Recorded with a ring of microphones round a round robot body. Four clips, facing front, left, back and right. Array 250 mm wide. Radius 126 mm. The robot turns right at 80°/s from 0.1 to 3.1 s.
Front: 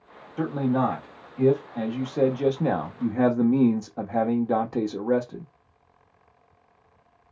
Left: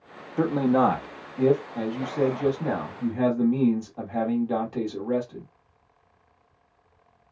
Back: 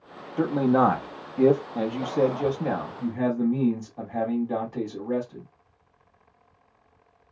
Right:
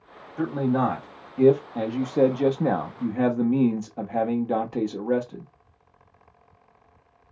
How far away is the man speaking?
About 0.8 m.